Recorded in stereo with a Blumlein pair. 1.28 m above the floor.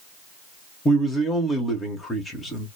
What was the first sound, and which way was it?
A man speaking, 15° left.